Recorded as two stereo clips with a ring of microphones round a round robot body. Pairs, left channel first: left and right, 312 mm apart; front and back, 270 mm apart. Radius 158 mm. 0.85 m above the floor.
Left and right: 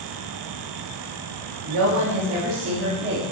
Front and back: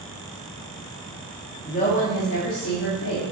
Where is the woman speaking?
70° right, 1.6 m; by 3.2 s 25° right, 1.7 m.